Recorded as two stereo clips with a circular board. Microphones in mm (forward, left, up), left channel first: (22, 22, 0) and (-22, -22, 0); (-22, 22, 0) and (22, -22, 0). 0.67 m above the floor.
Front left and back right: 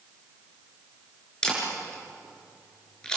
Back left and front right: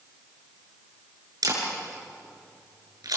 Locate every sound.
1.4 s a camera shutter: 30° right, 6.5 m